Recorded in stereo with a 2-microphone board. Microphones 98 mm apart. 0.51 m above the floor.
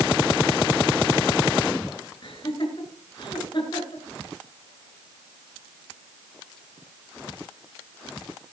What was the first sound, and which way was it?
Laughter, 50° left (ahead or behind).